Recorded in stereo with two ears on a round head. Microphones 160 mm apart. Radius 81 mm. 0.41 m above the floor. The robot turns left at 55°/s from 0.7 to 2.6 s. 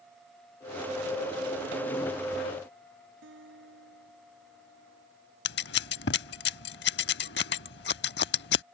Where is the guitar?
80° right.